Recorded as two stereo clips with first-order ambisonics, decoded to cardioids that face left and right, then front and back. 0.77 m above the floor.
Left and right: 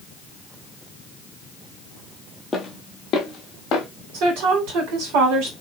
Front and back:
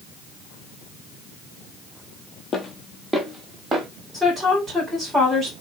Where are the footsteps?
30° left, 0.8 m; by 3.9 s 125° left, 1.1 m.